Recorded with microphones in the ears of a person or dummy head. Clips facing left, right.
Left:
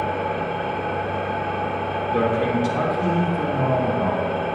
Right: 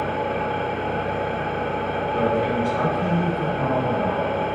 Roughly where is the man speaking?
Left.